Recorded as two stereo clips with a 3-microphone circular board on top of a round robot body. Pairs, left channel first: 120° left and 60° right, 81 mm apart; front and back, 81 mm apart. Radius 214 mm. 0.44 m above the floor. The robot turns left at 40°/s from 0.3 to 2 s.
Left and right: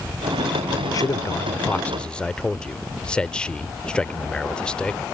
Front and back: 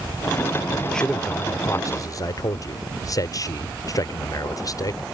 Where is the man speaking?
85° left; by 5.0 s 40° left.